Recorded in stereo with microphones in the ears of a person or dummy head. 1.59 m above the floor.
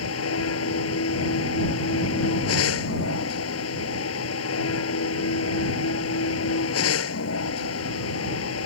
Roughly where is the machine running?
Left.